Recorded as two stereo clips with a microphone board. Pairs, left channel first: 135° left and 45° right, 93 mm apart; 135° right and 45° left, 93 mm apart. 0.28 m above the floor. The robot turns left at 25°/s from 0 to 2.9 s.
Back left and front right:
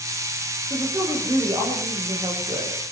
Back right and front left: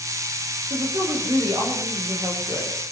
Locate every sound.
0.7 s a woman speaking: 20° left, 9 m; by 2.7 s 30° right, 9 m